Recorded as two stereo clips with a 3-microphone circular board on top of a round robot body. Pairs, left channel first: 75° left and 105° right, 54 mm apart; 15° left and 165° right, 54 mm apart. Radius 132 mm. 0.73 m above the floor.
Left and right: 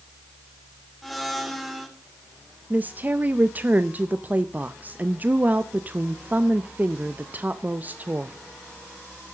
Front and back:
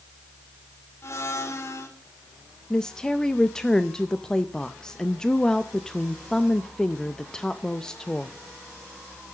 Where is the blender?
15° right, 3 m.